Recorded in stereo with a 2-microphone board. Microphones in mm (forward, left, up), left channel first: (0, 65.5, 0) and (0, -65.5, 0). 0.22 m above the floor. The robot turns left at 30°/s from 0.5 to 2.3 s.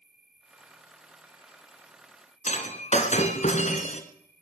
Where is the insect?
70° left, 2.5 m; by 4.4 s 15° left, 2.5 m.